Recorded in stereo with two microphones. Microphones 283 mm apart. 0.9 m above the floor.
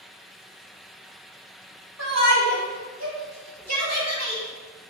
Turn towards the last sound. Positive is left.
turn(degrees=-75)  # may be behind; listen again after turning